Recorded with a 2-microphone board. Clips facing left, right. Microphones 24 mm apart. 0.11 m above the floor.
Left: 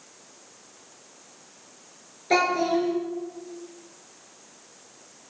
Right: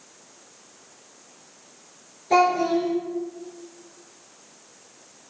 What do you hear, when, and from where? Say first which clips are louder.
2.3 s a child speaking: right 3 dB; 40° left (ahead or behind), 1.0 m